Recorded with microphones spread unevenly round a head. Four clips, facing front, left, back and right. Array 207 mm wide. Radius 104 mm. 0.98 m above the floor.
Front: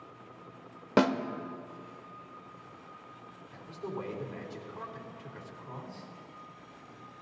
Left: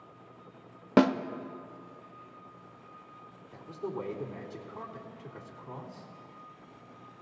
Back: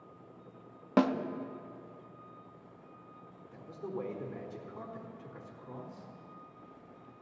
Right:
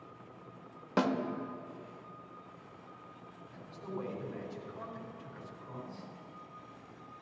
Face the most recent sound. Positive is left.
turn(degrees=120)